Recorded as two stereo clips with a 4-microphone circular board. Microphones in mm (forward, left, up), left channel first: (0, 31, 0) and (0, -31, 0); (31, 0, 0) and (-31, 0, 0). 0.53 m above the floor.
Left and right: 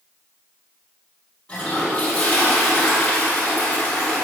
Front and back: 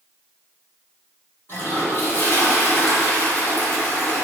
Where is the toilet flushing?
25° left, 1.9 m.